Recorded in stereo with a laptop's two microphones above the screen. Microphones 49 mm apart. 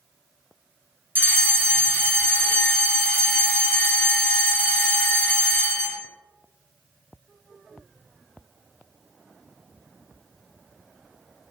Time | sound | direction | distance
1.1 | a fire alarm | 35° right (ahead or behind) | 1.8 m